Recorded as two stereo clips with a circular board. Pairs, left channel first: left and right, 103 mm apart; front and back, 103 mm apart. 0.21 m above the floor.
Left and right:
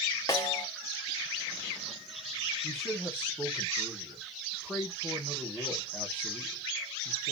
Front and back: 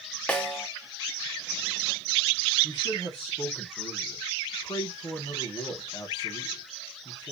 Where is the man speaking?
15° left, 1.3 m.